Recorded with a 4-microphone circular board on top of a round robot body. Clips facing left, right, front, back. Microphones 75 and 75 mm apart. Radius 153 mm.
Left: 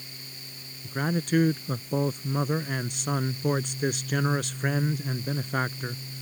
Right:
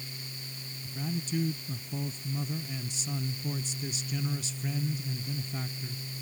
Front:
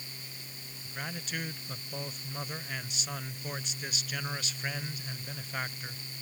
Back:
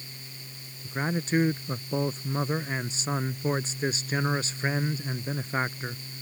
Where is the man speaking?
120° left.